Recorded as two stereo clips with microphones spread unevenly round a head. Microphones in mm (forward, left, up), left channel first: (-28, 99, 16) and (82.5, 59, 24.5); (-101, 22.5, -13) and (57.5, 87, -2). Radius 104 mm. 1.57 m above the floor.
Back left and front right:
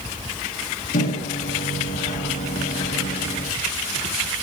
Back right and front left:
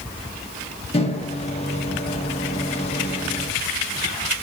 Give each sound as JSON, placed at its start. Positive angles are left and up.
{"t": 0.9, "sound": "a microwave", "azimuth_deg": 145, "distance_m": 1.5}